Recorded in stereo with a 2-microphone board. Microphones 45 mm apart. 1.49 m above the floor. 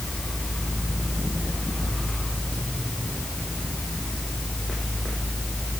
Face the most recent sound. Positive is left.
No sound to turn to.